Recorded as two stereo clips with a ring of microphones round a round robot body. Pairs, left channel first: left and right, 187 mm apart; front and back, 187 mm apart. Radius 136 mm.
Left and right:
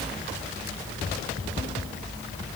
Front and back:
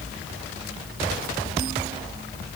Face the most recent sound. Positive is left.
No sound to turn to.